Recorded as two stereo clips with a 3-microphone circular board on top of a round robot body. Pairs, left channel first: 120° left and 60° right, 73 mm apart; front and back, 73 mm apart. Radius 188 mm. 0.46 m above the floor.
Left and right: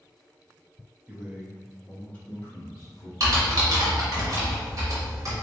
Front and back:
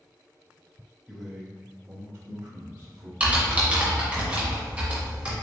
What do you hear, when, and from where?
1.1 s a man speaking: 90° right, 0.9 m; by 3.1 s 145° left, 1.3 m
3.2 s typing on a keyboard: 105° right, 0.6 m